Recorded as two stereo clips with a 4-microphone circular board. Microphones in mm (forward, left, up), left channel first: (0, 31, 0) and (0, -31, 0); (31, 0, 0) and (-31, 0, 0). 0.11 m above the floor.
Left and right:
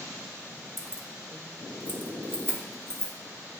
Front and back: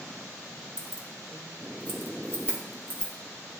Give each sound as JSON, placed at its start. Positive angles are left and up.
{"t": 0.8, "sound": "keys jangling", "azimuth_deg": -15, "distance_m": 1.1}